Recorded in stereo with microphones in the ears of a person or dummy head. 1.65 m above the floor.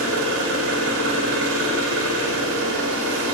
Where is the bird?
I don't hear a bird.